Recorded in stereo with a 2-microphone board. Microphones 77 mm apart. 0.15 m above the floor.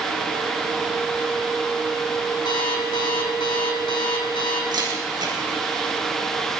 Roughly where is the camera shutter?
Right.